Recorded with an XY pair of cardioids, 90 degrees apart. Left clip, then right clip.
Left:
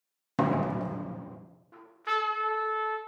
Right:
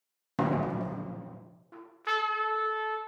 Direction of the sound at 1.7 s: 30° right.